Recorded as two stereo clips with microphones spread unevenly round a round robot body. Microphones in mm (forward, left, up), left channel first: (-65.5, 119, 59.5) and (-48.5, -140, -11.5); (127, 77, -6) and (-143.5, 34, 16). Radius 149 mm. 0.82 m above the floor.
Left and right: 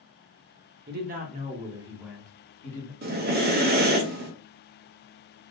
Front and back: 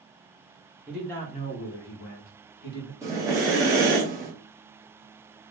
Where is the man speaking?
85° right, 0.6 m; by 2.9 s 5° left, 1.0 m.